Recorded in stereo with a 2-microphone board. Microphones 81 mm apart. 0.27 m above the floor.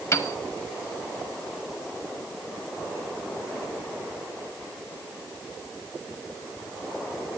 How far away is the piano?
About 1.0 m.